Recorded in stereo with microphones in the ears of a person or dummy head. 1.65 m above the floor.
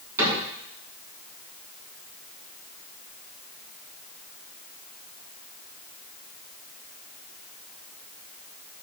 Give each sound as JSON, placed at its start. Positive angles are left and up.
{"t": 0.2, "sound": "a cupboard door", "side_deg": -15, "distance_m": 3.5}